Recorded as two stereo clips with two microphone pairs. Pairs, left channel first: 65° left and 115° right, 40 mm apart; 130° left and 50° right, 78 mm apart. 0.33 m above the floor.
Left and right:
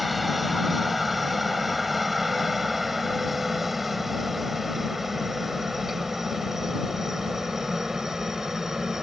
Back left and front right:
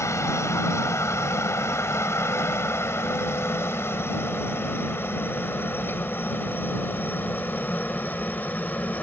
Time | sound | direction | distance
0.0 | a helicopter | 155° left | ?